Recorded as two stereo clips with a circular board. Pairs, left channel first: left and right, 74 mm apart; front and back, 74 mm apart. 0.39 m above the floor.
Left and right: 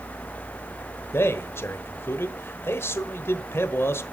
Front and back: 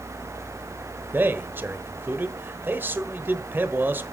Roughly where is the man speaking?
Behind left.